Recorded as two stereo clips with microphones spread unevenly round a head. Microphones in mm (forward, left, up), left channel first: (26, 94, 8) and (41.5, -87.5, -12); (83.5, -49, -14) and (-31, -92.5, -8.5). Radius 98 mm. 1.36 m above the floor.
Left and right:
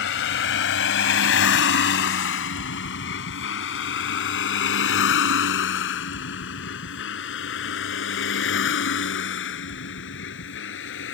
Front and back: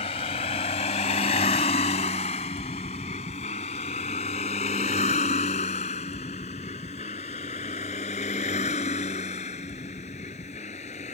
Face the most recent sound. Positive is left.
turn(degrees=80)